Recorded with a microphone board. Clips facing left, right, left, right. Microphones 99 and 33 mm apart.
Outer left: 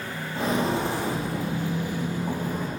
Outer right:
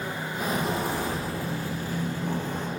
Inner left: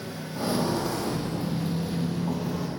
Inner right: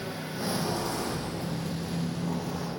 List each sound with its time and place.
0.3 s footsteps: 25° left (ahead or behind), 2.5 m; by 2.7 s 5° left (ahead or behind), 1.4 m